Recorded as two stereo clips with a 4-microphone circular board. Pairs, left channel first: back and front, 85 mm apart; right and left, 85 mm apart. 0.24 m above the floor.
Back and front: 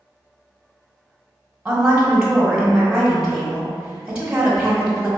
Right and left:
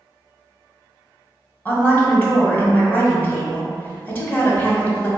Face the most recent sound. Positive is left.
turn(degrees=-65)